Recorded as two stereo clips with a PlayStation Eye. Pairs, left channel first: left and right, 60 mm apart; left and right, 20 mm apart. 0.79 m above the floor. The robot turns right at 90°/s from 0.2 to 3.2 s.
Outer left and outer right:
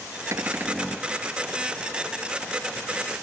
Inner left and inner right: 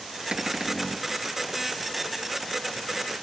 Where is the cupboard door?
50° right; by 1.1 s 15° left.